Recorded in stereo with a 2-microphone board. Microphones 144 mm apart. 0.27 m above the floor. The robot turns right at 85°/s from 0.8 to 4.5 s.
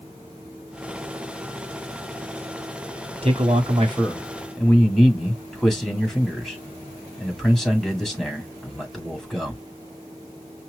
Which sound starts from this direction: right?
A man speaking, at 3.2 s.